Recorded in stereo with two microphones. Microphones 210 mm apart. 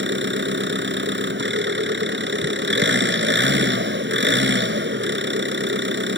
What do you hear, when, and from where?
0.0 s an engine running: 60° right (ahead or behind)